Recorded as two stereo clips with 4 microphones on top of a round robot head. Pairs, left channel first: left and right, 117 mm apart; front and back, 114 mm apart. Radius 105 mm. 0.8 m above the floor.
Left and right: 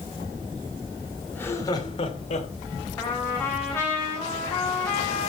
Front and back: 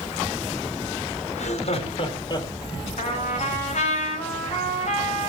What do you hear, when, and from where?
1.3 s laughter: 10° left, 2 m; by 2.5 s 55° left, 2.5 m
3.0 s a trumpet: 15° left, 4.5 m